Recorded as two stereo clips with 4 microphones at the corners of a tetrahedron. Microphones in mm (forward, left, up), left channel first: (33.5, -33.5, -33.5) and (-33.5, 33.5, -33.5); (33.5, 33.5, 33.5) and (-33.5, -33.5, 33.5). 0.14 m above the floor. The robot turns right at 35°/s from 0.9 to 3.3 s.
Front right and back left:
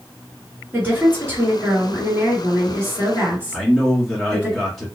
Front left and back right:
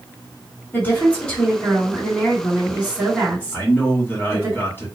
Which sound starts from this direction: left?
A woman speaking, at 0.7 s.